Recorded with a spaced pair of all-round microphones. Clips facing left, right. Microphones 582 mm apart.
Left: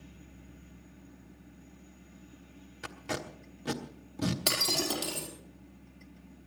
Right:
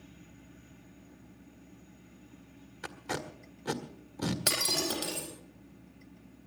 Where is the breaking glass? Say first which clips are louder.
Left 1 dB; 25° left (ahead or behind), 4.5 m.